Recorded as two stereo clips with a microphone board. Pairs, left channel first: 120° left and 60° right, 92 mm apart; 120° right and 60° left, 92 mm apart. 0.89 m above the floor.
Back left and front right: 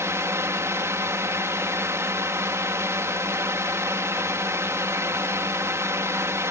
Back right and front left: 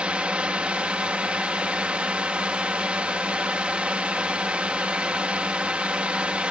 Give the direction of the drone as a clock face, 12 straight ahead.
12 o'clock.